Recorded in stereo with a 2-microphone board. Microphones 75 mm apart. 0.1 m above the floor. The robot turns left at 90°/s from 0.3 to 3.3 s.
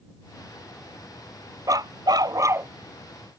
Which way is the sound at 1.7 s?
60° right.